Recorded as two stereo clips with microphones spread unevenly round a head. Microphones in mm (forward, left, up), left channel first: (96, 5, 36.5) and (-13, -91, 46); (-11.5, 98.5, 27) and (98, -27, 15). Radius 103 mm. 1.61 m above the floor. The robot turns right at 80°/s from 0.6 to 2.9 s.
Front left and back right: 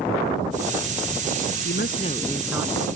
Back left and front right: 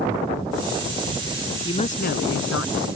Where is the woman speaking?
70° left; by 2.9 s 165° left.